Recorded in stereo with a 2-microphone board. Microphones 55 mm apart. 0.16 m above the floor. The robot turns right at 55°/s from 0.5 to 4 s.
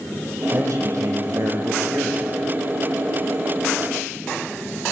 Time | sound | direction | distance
0.5 | a man speaking | 120° right | 6 m